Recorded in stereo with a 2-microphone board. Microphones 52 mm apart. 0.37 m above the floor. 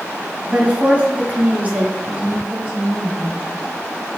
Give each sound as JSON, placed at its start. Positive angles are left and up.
{"t": 0.5, "sound": "a woman speaking", "side_deg": -30, "distance_m": 3.0}
{"t": 2.0, "sound": "a woman speaking", "side_deg": -30, "distance_m": 2.5}